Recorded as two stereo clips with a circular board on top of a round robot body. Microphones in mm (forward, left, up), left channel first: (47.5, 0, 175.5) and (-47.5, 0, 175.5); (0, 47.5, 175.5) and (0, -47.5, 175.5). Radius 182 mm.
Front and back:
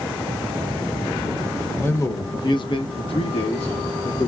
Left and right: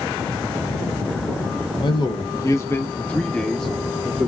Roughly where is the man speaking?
Ahead left.